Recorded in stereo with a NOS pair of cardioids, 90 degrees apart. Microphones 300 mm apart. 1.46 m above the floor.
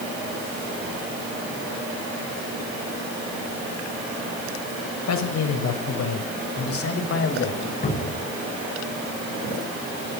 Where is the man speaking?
65° left, 6.5 m; by 7.7 s 40° left, 6 m.